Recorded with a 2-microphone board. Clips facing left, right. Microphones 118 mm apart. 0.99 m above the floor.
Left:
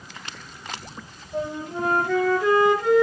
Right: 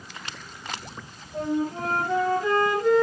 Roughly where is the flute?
Left.